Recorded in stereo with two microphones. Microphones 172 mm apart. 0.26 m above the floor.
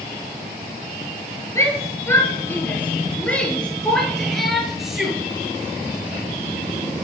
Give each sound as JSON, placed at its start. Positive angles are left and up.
{"t": 1.6, "sound": "a shout", "side_deg": 15, "distance_m": 6.0}